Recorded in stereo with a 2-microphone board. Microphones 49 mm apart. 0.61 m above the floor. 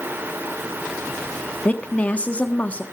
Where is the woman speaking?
25° left (ahead or behind), 1.3 m.